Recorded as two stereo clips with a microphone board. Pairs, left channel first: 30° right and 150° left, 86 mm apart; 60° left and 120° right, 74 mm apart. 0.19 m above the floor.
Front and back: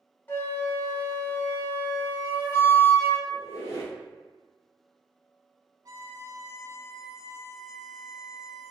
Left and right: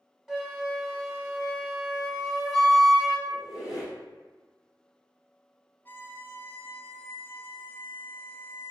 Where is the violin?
115° left, 0.5 m.